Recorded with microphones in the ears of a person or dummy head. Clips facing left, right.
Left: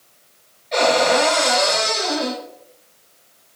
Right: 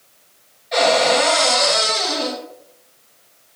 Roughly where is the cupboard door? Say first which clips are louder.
Right 1 dB; centre.